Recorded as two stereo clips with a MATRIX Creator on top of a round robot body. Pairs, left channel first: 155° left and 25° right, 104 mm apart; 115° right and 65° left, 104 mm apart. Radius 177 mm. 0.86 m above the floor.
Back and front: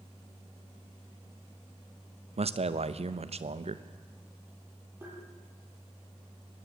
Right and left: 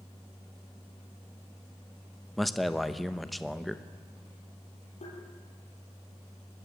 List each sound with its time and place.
2.4 s a man speaking: 25° right, 1.1 m
5.0 s tapping: 95° right, 7.5 m